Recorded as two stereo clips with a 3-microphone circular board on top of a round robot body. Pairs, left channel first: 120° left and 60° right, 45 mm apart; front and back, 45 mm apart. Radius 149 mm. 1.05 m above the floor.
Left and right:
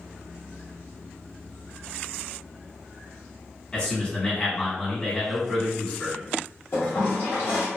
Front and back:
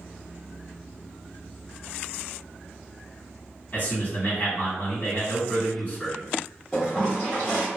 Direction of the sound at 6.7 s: 75° left.